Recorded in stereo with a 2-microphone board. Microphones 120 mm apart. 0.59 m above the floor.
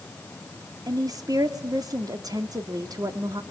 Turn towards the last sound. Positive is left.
turn(degrees=-30)  # may be behind; listen again after turning